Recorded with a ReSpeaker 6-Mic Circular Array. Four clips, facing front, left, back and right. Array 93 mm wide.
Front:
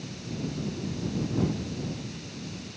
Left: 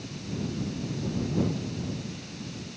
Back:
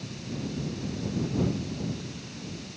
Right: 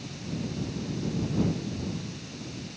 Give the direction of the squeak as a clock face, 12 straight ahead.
I don't hear a squeak.